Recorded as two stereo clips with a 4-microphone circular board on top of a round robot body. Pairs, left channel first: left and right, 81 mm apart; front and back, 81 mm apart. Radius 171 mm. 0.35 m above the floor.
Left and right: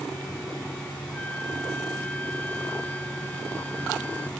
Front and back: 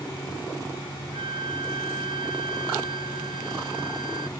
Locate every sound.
1.1 s a flute: 165° left